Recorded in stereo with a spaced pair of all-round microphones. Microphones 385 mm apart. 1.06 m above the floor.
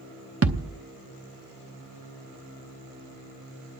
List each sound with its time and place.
0.4 s a thud: 40° right (ahead or behind), 0.7 m